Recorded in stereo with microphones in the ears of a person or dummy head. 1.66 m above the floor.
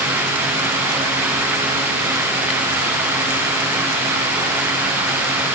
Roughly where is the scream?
I don't hear a scream.